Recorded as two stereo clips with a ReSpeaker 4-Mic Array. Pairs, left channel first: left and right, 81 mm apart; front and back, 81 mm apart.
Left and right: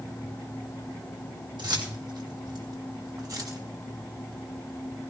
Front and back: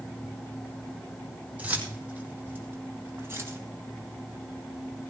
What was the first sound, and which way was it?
Keys jangling, 110° right.